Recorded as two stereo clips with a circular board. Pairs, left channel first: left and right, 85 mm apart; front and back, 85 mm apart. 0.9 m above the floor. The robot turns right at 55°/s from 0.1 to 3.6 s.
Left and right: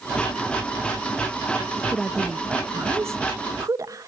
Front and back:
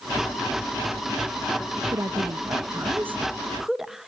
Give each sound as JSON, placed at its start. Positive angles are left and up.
{"t": 1.9, "sound": "a woman speaking", "azimuth_deg": 170, "distance_m": 1.1}